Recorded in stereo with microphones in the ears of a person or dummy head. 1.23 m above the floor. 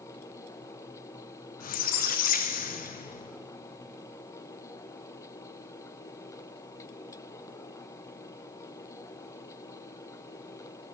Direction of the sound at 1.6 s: 45° left (ahead or behind).